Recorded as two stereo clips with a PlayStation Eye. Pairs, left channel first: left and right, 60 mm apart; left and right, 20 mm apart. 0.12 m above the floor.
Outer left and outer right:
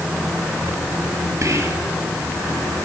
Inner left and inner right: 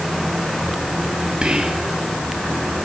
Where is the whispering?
55° right (ahead or behind), 3 m.